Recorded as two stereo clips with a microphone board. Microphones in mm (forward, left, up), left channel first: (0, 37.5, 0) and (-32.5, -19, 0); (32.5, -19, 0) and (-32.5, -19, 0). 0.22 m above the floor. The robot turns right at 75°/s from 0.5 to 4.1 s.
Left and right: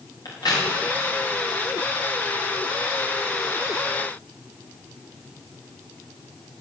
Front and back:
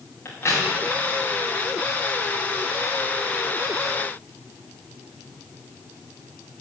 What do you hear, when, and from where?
0.2 s a crack: 55° left, 5 m; by 0.7 s 65° left, 5 m